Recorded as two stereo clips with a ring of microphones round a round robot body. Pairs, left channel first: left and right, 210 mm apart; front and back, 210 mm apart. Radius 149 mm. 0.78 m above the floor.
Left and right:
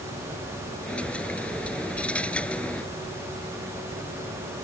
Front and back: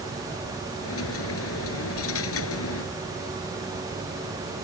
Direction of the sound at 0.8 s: 5° left.